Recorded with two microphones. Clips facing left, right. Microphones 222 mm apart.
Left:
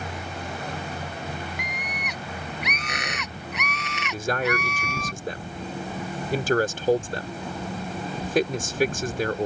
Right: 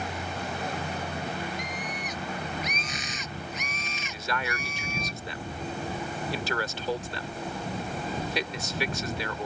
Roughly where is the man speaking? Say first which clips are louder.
Left 9 dB; left.